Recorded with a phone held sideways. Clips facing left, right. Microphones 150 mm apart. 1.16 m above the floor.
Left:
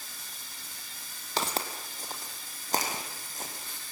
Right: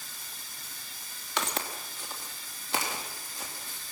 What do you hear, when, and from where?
1.4 s footsteps: 35° left (ahead or behind), 2 m; by 3.9 s 45° left (ahead or behind), 3.5 m